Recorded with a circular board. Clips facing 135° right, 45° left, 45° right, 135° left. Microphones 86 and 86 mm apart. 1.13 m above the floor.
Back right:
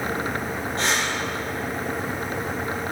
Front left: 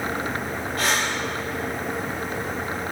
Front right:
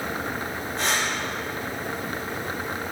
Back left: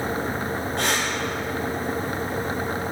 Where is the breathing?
165° left, 6.5 m.